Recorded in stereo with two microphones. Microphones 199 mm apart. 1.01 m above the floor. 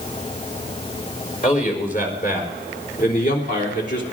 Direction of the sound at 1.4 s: 45° left (ahead or behind).